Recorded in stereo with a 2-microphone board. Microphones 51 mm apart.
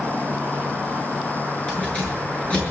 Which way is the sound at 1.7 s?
20° left (ahead or behind).